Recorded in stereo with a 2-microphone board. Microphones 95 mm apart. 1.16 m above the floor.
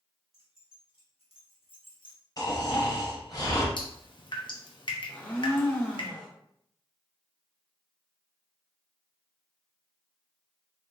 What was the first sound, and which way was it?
Keys jangling, 75° left (ahead or behind).